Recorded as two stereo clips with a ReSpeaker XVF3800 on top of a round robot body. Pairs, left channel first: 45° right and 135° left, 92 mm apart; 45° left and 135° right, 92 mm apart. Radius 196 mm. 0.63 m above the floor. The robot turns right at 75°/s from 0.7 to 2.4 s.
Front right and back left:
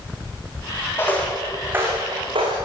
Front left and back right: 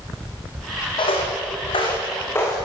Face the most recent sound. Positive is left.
turn(degrees=110)